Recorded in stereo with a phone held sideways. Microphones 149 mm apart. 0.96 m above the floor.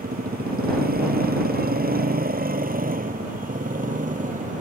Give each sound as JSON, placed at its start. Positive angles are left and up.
{"t": 0.0, "sound": "a motorcycle", "side_deg": -80}